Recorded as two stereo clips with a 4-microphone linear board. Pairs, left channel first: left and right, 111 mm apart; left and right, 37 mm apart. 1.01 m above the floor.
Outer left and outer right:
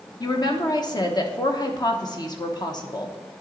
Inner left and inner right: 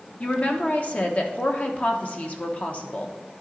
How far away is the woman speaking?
About 1.0 m.